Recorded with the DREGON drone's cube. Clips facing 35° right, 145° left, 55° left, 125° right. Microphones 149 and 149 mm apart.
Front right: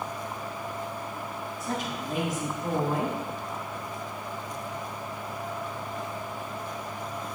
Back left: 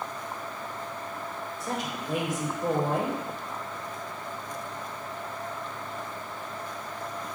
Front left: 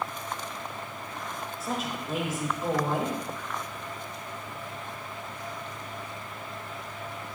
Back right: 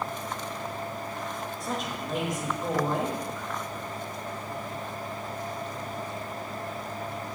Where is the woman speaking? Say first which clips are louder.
Front right 1 dB, front left 2 dB; 140° left, 3.5 m.